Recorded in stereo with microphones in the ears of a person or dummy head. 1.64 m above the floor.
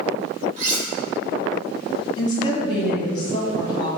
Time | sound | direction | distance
0.6 | cutlery clinking | 40° right (ahead or behind) | 1.5 m
2.2 | a woman speaking | 30° left (ahead or behind) | 1.5 m